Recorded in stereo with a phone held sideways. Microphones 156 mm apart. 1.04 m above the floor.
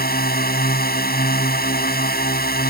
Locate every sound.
0.0 s a drone: 80° left